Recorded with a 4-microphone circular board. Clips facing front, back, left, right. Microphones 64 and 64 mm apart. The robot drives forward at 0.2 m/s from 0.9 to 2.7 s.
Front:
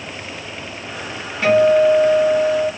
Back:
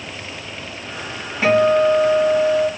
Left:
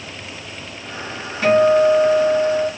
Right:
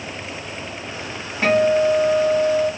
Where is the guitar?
135° right, 1.8 m; by 2.7 s 140° right, 1.9 m.